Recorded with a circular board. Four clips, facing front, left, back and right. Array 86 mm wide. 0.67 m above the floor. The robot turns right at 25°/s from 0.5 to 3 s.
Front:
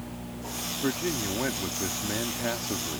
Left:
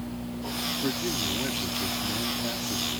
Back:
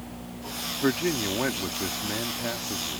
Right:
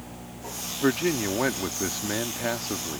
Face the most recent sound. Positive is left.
turn(degrees=-60)